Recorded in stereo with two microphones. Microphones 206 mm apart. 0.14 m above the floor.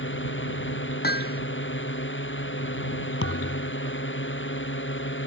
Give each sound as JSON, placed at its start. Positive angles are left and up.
{"t": 0.0, "sound": "a drone", "side_deg": 70}
{"t": 1.0, "sound": "hammering", "side_deg": 50}
{"t": 3.2, "sound": "a thud", "side_deg": 80}